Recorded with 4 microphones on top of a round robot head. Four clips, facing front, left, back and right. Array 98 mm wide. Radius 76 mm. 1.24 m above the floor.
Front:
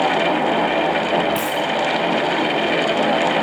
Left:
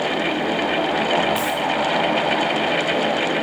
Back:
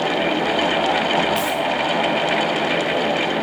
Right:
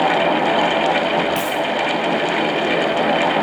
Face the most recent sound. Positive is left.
turn(degrees=-35)